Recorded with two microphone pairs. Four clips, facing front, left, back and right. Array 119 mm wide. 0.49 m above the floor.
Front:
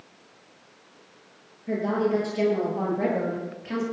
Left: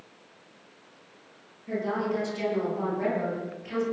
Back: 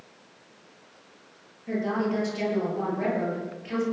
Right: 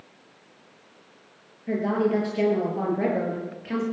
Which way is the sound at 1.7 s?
90° right.